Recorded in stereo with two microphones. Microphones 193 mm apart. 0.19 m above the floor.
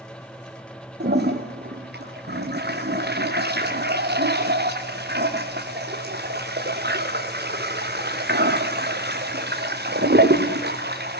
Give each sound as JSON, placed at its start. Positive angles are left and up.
{"t": 1.0, "sound": "a toilet flushing", "side_deg": -60, "distance_m": 3.0}